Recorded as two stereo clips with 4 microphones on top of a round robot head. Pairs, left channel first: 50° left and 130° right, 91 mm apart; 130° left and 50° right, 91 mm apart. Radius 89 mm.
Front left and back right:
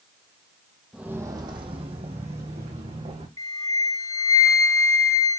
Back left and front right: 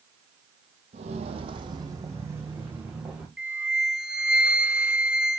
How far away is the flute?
About 1.2 m.